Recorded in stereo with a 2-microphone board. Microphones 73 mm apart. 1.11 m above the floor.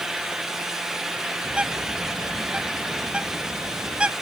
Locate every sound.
1.4 s a bird: 15° right (ahead or behind)